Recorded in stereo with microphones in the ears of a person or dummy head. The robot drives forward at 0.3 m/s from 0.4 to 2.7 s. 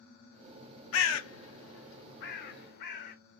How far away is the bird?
About 0.6 m.